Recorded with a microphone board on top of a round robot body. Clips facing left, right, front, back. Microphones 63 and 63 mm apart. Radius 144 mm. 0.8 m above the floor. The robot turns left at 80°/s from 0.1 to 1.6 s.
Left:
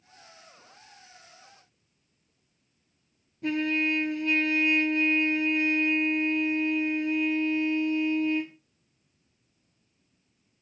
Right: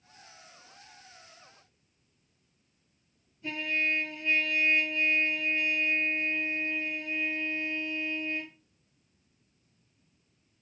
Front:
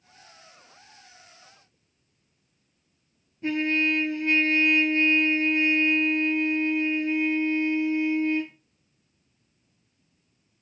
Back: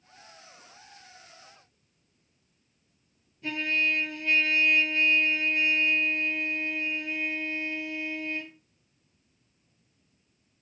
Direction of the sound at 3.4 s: 60° left.